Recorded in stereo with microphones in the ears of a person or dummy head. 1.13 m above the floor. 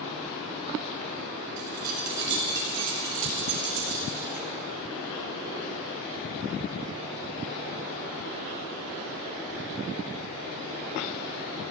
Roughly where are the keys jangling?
Right.